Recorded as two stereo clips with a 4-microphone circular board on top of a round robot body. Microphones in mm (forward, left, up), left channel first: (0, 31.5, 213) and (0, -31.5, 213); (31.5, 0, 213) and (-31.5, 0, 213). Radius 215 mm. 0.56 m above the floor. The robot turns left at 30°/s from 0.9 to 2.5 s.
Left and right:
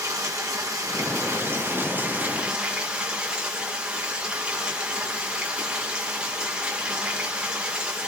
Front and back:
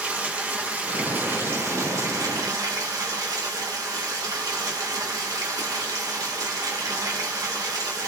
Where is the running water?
115° right, 2 m; by 8.1 s 165° right, 2 m.